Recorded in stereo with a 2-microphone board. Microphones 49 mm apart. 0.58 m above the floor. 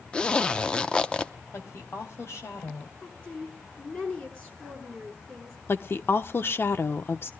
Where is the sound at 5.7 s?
45° left (ahead or behind), 0.9 m.